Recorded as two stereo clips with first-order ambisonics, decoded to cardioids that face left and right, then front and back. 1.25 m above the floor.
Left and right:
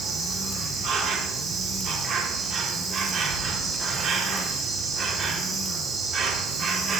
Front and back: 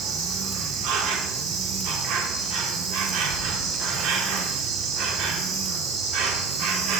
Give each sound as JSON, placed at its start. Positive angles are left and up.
{"t": 0.0, "sound": "an insect", "azimuth_deg": -150, "distance_m": 1.0}